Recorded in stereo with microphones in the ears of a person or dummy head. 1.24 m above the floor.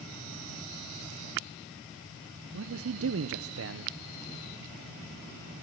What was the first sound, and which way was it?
A man speaking, 60° right (ahead or behind).